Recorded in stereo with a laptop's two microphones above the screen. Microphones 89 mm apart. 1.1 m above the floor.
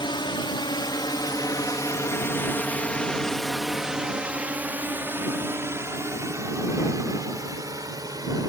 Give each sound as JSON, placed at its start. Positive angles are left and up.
{"t": 0.0, "sound": "a drone", "side_deg": 70}